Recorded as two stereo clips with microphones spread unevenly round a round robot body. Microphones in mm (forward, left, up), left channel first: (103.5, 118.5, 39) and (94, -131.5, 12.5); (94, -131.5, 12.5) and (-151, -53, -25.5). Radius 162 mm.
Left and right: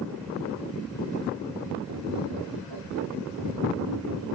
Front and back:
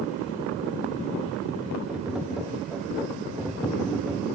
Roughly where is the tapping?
Right.